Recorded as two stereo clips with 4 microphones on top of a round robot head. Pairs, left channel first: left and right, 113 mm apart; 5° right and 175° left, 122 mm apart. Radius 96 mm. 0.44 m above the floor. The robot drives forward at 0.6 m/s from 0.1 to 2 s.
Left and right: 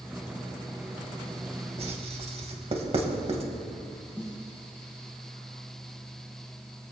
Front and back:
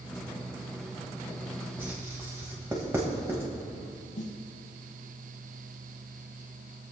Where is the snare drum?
10° right, 2.0 m.